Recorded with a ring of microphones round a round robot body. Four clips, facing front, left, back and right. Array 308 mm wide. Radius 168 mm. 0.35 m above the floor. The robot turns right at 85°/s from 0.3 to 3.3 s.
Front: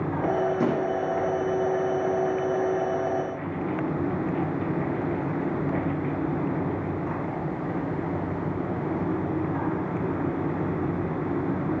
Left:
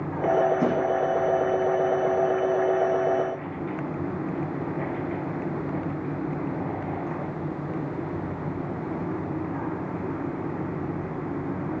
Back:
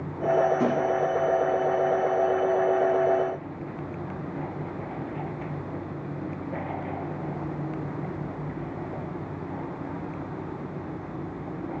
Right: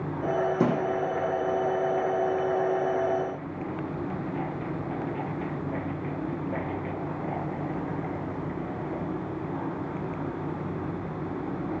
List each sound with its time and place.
0.6 s a thud: 80° right, 10 m; by 1.0 s 50° right, 10 m